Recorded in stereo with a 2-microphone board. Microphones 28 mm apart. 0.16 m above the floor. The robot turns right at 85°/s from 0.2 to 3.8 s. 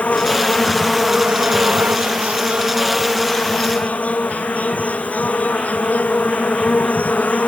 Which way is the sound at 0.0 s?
120° left.